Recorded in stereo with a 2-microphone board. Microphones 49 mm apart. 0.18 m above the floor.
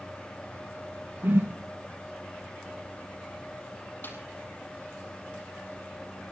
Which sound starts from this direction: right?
A whoosh, at 1.2 s.